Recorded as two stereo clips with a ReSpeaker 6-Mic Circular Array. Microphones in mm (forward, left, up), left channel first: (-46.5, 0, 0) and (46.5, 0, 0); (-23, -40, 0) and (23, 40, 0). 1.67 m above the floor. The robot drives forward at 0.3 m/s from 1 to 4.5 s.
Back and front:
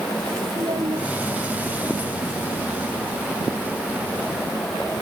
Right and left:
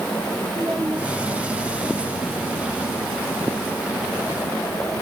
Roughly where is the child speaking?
Ahead.